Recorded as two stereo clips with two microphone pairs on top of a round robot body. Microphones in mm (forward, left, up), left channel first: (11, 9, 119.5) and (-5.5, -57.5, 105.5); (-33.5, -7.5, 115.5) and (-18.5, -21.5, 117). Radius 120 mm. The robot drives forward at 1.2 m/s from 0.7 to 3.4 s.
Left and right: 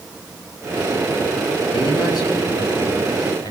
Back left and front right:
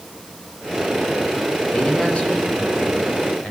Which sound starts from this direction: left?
A man speaking, at 1.7 s.